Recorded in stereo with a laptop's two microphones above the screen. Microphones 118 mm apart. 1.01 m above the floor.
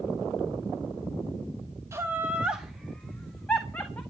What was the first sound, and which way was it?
Laughter, 25° right (ahead or behind).